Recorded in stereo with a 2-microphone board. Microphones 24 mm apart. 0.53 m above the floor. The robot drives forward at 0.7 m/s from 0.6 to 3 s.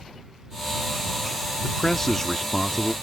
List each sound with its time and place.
1.6 s a man speaking: 15° left (ahead or behind); by 2.9 s 10° left (ahead or behind)